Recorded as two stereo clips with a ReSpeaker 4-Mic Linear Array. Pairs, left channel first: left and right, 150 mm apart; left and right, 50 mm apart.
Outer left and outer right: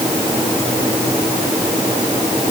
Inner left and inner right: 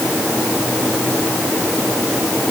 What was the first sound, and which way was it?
Only background noise.